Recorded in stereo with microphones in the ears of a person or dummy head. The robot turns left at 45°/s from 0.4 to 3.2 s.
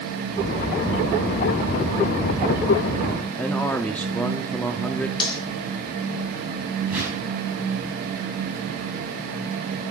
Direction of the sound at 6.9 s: 5° right (ahead or behind).